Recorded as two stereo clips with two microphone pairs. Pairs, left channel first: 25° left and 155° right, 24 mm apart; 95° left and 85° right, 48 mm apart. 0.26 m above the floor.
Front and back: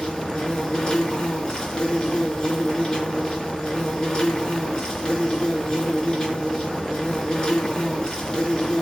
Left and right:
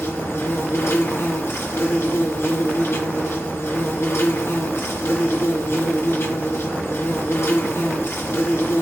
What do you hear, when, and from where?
0.0 s an insect: 80° left, 4 m